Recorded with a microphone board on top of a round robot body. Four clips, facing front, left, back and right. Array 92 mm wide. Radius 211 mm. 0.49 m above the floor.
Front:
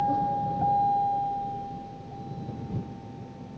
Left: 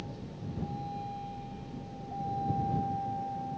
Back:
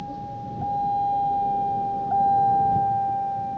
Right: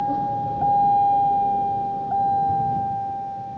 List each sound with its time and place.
0.0 s a vehicle: 60° right; by 3.6 s 165° right